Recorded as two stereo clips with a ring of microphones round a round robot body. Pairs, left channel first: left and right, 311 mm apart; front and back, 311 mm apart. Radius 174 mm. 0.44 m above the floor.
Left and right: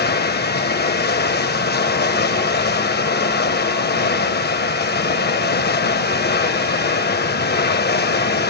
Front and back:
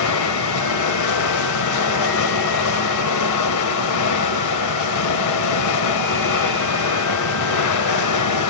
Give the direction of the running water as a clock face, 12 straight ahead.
11 o'clock.